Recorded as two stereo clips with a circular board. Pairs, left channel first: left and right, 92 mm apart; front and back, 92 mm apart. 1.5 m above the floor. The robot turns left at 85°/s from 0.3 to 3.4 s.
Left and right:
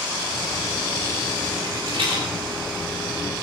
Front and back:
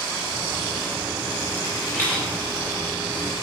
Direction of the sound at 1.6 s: 35° right.